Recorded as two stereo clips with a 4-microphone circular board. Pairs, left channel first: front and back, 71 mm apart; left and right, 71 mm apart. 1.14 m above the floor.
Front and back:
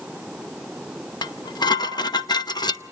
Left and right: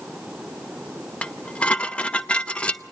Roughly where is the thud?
No thud in this recording.